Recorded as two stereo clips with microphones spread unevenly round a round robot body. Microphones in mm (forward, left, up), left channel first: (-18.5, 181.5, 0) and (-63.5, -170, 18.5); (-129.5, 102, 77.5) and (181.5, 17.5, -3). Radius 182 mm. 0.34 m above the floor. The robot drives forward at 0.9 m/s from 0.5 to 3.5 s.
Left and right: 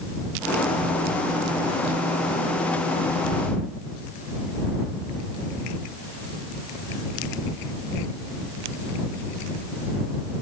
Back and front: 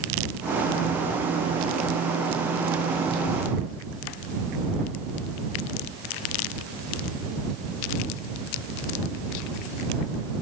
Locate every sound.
Only background noise.